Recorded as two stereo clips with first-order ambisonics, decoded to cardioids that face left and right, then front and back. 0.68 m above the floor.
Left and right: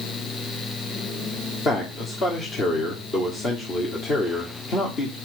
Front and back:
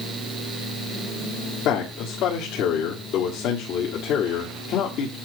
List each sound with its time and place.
1.6 s a man speaking: 35° left, 1.5 m